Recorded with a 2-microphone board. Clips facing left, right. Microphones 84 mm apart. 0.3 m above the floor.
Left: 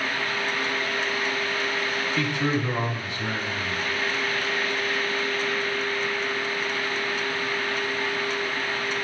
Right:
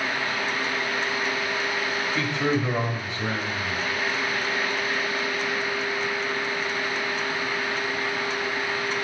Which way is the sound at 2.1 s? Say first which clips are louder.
Right 1 dB; 30° right (ahead or behind).